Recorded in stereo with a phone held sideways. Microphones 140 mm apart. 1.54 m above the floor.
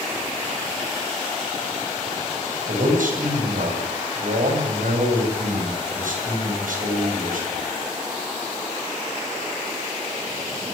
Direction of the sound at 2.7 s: 75° right (ahead or behind).